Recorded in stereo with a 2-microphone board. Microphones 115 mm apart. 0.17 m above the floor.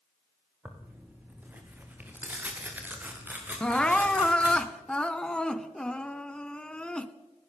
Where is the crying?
10° left (ahead or behind), 1.1 m.